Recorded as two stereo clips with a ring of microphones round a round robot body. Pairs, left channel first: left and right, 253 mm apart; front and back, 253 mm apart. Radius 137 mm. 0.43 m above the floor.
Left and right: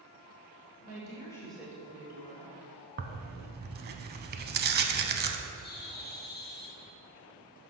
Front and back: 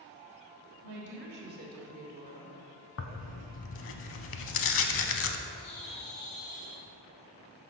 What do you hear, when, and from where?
0.8 s a woman speaking: 140° left, 1.5 m; by 2.5 s 110° right, 1.4 m
3.0 s tearing paper: 40° right, 0.6 m
5.6 s a bird: 40° left, 2.0 m